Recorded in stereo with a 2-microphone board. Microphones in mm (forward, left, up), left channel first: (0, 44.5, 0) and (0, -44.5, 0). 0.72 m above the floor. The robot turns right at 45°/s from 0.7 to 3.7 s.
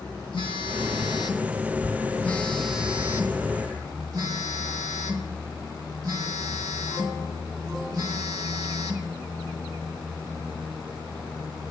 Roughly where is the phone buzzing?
Left.